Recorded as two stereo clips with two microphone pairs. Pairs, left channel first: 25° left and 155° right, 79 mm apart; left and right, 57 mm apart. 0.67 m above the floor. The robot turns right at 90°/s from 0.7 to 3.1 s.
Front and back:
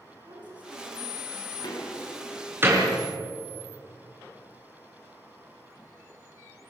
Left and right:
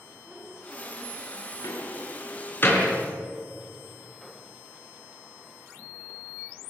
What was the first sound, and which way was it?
A woman speaking, 165° right.